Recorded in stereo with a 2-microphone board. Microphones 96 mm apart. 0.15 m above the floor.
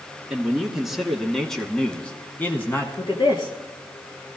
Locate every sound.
0.3 s a man speaking: 10° right (ahead or behind), 2 m; by 2.9 s 25° left (ahead or behind), 1.6 m
3.0 s a woman speaking: 55° left (ahead or behind), 3 m